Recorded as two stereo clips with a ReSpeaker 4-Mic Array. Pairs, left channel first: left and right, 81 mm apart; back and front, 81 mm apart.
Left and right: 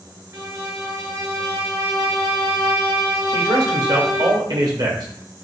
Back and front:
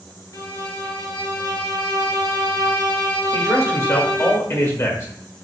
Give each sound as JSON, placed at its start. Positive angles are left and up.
{"t": 0.3, "sound": "a violin", "azimuth_deg": -140, "distance_m": 1.4}
{"t": 3.3, "sound": "a man speaking", "azimuth_deg": -125, "distance_m": 1.7}